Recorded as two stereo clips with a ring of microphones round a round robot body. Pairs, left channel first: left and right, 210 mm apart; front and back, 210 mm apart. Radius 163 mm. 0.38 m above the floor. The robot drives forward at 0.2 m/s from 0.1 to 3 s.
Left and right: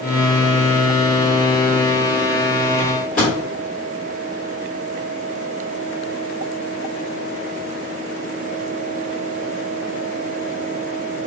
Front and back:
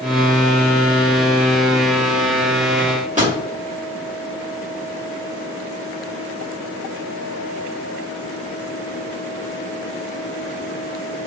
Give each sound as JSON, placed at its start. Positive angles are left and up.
{"t": 2.8, "sound": "a microwave", "azimuth_deg": 135, "distance_m": 1.9}